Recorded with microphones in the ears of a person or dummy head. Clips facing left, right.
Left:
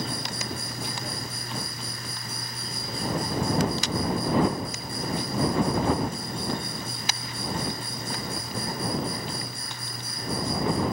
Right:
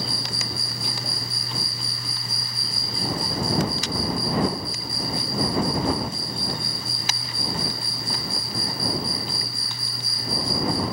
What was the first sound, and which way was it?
An insect, 30° right (ahead or behind).